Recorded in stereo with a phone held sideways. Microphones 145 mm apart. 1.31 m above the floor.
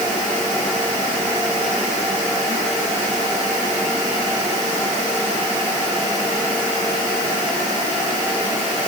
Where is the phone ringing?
No phone ringing in this recording.